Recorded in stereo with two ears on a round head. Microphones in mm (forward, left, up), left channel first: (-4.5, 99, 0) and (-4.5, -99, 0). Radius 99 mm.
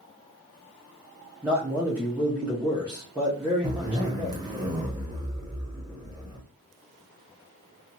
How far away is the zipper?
About 0.9 m.